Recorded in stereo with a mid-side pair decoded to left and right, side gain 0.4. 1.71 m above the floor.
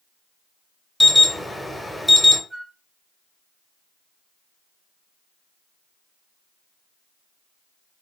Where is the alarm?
5° left, 0.9 m.